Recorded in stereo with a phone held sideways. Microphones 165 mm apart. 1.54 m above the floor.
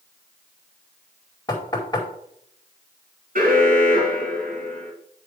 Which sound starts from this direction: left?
Knocking, at 1.5 s.